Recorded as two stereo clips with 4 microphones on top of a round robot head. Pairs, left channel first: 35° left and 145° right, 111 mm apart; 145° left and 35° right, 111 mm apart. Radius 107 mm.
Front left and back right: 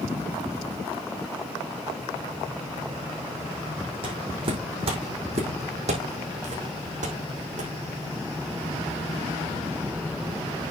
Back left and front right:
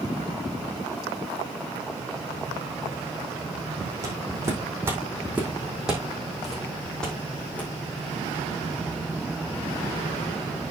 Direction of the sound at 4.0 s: 100° right.